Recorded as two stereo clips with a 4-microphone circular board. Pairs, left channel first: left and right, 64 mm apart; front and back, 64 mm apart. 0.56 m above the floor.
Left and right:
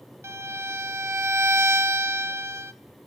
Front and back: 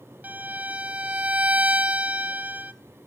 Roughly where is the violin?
Behind right.